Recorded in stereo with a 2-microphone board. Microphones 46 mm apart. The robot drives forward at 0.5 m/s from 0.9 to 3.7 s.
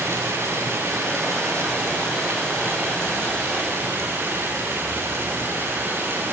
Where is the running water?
65° right (ahead or behind), 6 m; by 6.3 s 55° right (ahead or behind), 6.5 m.